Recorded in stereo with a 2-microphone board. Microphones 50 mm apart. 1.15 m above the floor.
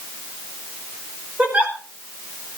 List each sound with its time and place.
1.4 s a giggle: 30° right (ahead or behind), 6 m